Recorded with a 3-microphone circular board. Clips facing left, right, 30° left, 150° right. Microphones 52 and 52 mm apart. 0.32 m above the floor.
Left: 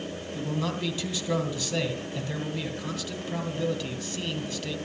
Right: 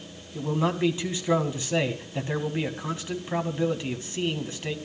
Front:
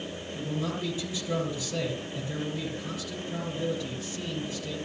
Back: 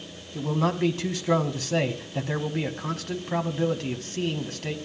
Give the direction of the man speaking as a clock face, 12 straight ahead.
5 o'clock.